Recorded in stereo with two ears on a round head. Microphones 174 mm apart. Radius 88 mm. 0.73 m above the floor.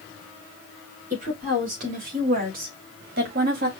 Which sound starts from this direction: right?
A woman speaking, at 1.1 s.